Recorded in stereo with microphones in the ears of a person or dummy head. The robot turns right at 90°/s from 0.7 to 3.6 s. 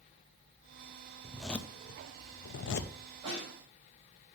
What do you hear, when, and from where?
1.2 s a zipper: 15° right (ahead or behind), 0.5 m; by 2.9 s 40° left (ahead or behind), 0.5 m
3.2 s a snare drum: 25° right (ahead or behind), 3.5 m; by 3.5 s 45° right (ahead or behind), 3.5 m